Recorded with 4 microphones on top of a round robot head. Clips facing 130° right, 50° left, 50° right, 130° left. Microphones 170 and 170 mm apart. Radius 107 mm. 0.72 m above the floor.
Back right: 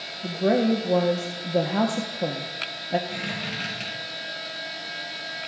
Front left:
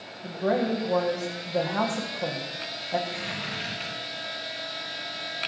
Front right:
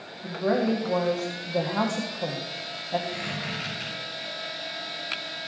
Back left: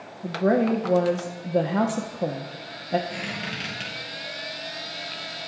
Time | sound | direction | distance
0.2 | a woman speaking | straight behind | 1.2 m
3.1 | a squeak | 170° right | 5.5 m